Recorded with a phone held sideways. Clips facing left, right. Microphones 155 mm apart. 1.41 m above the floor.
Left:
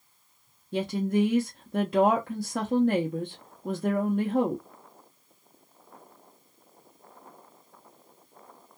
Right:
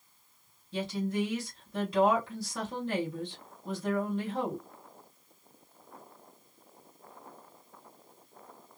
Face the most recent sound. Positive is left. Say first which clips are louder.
# left 6 dB
turn(degrees=55)  # may be behind; listen again after turning